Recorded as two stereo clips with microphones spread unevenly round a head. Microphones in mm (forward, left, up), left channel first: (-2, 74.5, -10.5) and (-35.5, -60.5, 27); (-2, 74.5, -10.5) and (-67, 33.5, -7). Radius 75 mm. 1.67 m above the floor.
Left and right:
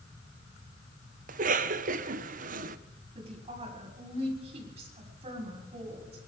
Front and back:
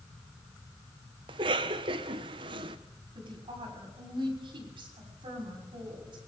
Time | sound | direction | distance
1.3 | a cough | 125° right | 1.1 m
3.1 | a woman speaking | 150° right | 6 m